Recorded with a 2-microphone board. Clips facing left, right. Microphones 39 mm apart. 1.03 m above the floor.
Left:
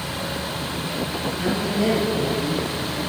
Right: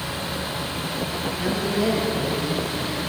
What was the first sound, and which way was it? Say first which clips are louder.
A woman speaking: left 1 dB; centre (ahead or behind).